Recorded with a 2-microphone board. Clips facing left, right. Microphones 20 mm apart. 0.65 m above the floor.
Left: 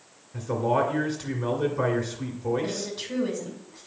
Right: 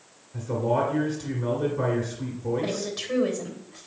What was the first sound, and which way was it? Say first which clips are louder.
A man speaking: left 1 dB; 20° left (ahead or behind).